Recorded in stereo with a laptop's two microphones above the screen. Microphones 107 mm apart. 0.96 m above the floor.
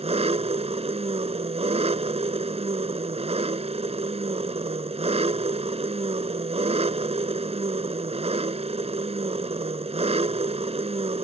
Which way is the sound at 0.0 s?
70° right (ahead or behind).